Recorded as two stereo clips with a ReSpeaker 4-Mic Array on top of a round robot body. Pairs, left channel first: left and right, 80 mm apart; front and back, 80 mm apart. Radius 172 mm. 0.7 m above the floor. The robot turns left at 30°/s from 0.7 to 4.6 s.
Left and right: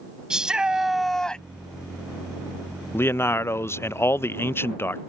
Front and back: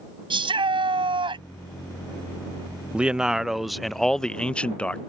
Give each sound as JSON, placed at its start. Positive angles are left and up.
{"t": 0.3, "sound": "a shout", "azimuth_deg": -170}
{"t": 2.9, "sound": "a man speaking", "azimuth_deg": 115}